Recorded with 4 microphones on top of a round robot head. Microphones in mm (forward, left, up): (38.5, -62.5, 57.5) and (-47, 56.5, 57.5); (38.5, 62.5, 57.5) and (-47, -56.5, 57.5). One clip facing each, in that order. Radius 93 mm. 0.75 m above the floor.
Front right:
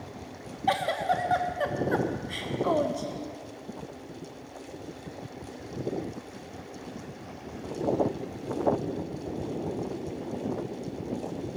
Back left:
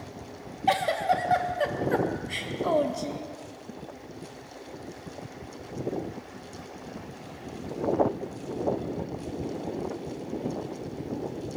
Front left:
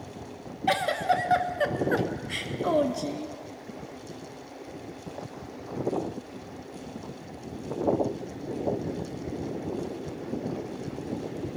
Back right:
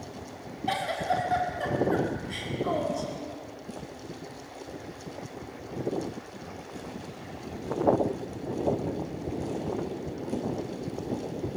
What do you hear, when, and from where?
0.7 s a giggle: 45° left, 0.9 m